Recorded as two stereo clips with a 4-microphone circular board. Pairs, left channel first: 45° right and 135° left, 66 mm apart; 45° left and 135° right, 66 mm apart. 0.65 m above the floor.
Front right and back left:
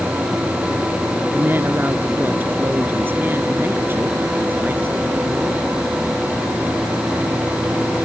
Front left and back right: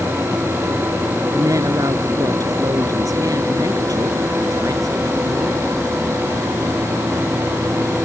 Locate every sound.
1.3 s a woman speaking: 165° right